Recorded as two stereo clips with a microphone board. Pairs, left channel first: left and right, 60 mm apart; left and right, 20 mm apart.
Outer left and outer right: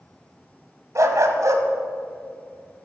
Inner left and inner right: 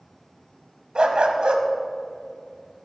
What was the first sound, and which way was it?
A dog barking, 65° right (ahead or behind).